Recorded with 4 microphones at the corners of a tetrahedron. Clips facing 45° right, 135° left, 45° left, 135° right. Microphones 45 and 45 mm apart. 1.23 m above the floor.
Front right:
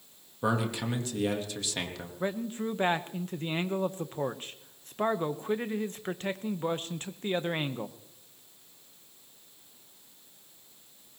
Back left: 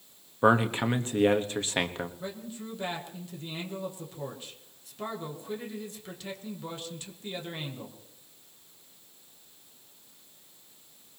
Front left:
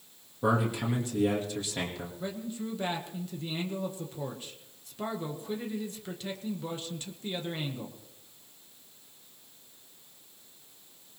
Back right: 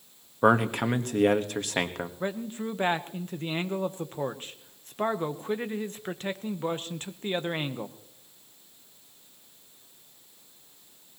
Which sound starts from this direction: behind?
A man speaking, at 0.4 s.